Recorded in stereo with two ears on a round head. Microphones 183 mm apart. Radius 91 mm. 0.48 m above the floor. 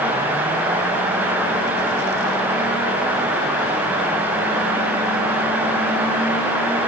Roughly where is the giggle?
I don't hear a giggle.